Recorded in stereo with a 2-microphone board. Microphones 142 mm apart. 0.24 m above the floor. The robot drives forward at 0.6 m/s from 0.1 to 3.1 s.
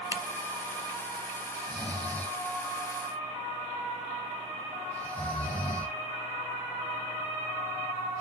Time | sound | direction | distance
0.1 | a camera shutter | 20° right (ahead or behind) | 0.8 m
1.5 | snoring | 10° left (ahead or behind) | 1.1 m